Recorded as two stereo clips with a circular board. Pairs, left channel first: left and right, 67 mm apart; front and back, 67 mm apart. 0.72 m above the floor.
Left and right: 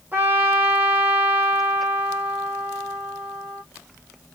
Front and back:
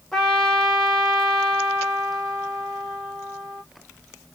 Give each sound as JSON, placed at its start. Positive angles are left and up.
{"t": 0.1, "sound": "a trumpet", "azimuth_deg": -80, "distance_m": 1.1}